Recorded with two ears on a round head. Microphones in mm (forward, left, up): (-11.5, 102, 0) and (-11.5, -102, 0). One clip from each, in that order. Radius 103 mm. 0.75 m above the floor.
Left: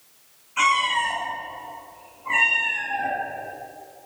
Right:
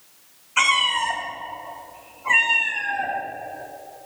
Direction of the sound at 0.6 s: 40° right (ahead or behind).